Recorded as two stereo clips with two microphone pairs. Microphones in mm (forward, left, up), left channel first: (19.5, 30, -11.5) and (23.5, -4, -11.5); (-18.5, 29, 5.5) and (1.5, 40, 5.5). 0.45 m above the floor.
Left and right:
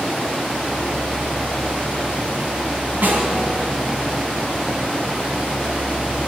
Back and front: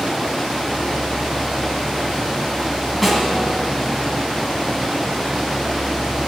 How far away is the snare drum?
About 1.8 m.